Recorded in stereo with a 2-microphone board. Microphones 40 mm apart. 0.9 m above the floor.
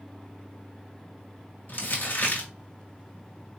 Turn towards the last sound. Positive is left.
turn(degrees=50)  # may be behind; listen again after turning